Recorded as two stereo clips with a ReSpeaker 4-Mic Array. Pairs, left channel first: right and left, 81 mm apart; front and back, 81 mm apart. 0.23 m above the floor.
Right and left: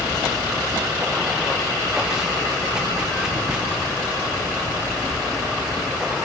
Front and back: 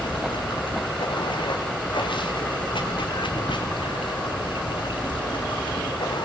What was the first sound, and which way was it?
Running water, 5° left.